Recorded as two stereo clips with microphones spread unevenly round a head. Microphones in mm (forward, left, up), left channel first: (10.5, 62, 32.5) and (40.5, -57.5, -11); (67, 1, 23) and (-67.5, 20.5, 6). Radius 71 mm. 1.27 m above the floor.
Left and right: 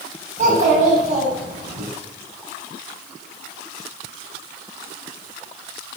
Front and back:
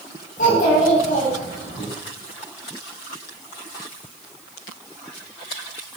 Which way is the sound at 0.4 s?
40° right.